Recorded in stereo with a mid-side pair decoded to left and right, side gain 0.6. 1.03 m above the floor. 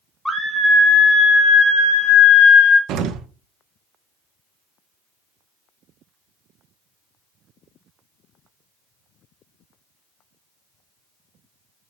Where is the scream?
10° left, 1.1 m; by 2.8 s 50° left, 2 m.